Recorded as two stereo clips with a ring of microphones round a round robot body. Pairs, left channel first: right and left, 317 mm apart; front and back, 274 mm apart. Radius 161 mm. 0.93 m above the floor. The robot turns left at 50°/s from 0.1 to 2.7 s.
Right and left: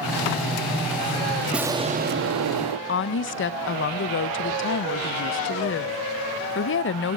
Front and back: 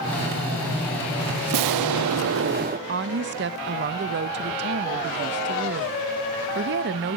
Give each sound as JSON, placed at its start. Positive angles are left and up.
{"t": 1.5, "sound": "an explosion", "azimuth_deg": 180, "distance_m": 0.6}
{"t": 2.9, "sound": "a woman speaking", "azimuth_deg": -135, "distance_m": 0.6}